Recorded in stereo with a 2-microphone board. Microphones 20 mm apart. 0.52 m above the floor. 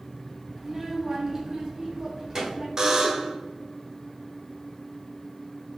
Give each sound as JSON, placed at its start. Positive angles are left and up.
{"t": 0.6, "sound": "a child speaking", "side_deg": -15, "distance_m": 0.7}
{"t": 2.8, "sound": "a buzzer", "side_deg": -35, "distance_m": 0.6}